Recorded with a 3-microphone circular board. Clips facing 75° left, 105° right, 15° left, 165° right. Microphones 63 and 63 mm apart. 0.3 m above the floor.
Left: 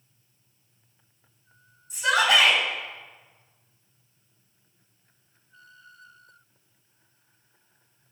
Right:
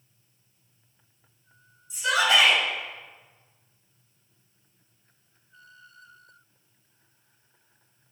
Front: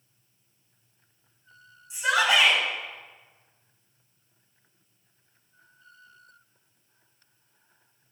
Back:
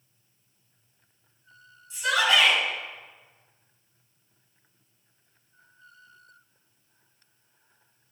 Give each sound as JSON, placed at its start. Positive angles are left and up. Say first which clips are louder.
{"t": 1.9, "sound": "a shout", "louder": "left 1 dB, front 1 dB", "azimuth_deg": 80, "distance_m": 2.0}